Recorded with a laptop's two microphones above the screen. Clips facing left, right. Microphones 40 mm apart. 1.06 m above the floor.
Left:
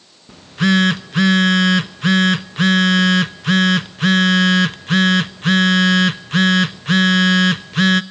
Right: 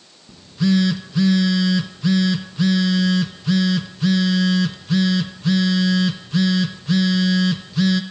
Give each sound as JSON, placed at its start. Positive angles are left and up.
{"t": 0.3, "sound": "a phone buzzing", "side_deg": 60, "distance_m": 0.8}